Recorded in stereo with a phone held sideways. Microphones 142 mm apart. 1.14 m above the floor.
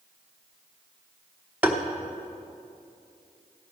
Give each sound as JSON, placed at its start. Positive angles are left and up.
{"t": 1.6, "sound": "tapping", "side_deg": -15, "distance_m": 0.9}